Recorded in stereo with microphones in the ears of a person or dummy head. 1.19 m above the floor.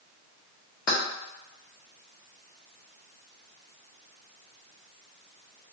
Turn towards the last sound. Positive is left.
turn(degrees=45)  # may be behind; listen again after turning